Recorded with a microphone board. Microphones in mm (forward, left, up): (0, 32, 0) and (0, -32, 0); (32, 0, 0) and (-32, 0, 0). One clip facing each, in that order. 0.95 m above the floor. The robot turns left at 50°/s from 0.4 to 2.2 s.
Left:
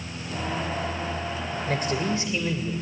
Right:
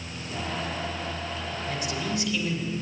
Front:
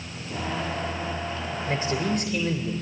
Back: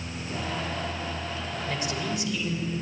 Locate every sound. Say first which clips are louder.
1.7 s a man speaking: left 5 dB, front 5 dB; 60° left, 3.5 m; by 2.7 s 35° left, 3.5 m